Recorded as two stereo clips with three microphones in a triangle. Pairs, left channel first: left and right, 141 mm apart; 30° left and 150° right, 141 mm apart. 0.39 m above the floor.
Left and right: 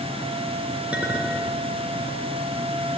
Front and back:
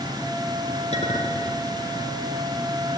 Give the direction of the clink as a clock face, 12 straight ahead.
12 o'clock.